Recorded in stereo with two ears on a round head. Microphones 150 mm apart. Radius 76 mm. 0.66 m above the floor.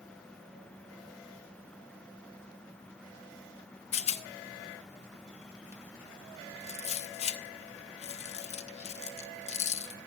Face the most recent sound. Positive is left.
turn(degrees=40)  # may be behind; listen again after turning